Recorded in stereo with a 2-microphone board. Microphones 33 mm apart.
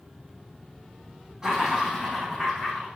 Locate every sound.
1.4 s laughter: 10° right (ahead or behind), 4 m; by 2.9 s 10° left (ahead or behind), 4 m